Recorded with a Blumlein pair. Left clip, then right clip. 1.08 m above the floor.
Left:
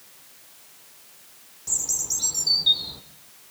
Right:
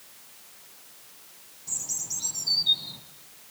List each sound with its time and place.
1.7 s a bird: 65° left, 1.6 m